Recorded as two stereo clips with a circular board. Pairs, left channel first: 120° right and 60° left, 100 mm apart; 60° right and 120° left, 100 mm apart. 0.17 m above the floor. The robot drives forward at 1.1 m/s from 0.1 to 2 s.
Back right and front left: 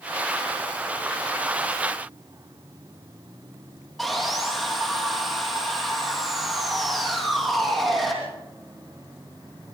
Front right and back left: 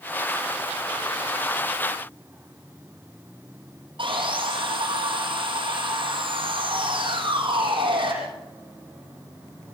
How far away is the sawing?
About 5.5 m.